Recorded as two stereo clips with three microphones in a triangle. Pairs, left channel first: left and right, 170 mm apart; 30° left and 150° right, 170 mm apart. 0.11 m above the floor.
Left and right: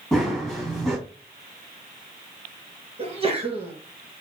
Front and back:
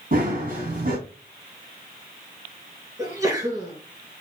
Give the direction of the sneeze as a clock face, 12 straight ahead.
3 o'clock.